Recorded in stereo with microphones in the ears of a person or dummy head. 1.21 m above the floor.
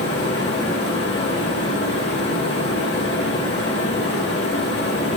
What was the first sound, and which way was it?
A fan, 35° left (ahead or behind).